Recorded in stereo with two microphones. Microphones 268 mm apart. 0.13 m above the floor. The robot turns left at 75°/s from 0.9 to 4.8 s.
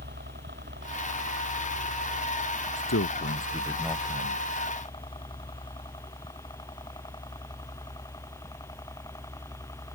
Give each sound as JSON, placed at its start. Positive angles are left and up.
{"t": 0.0, "sound": "a helicopter", "side_deg": -40}
{"t": 2.8, "sound": "a man speaking", "azimuth_deg": 80}